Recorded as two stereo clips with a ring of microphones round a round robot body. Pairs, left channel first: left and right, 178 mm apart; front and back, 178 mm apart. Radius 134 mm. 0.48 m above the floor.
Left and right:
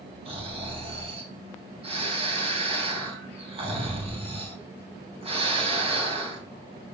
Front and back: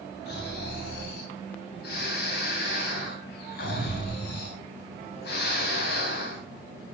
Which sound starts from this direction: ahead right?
Snoring, at 0.2 s.